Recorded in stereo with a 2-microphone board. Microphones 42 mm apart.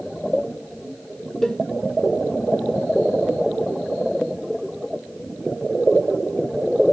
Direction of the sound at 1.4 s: 10° left (ahead or behind).